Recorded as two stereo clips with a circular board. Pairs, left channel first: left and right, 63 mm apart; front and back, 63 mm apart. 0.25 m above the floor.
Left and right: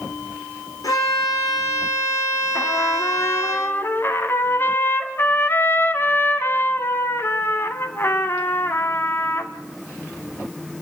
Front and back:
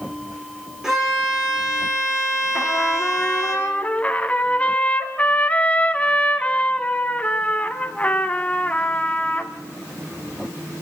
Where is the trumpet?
60° left, 2.0 m.